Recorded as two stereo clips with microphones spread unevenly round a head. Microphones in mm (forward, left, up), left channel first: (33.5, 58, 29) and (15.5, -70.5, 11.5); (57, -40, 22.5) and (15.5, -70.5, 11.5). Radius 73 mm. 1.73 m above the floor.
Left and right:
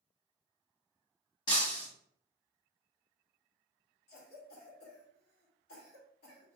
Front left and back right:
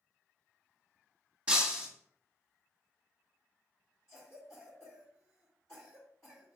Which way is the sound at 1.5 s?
135° left.